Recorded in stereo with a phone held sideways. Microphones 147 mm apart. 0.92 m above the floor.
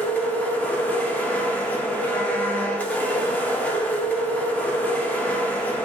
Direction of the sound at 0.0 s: 10° left (ahead or behind).